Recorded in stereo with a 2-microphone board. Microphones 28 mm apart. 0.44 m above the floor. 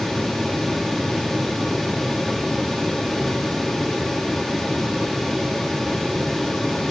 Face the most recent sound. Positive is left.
No sound to turn to.